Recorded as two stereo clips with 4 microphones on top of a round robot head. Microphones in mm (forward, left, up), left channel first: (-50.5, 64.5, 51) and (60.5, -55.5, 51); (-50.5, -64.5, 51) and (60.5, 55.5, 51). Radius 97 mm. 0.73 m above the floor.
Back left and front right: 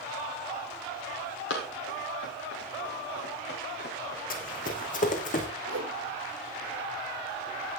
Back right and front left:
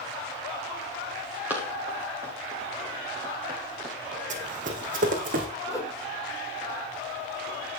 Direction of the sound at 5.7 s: 60° right.